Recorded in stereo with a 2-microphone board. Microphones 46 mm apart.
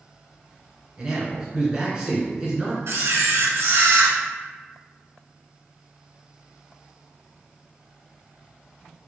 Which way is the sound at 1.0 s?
15° right (ahead or behind).